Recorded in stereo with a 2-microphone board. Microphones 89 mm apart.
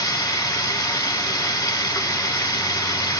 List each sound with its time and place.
0.0 s running water: 45° left (ahead or behind), 1.0 m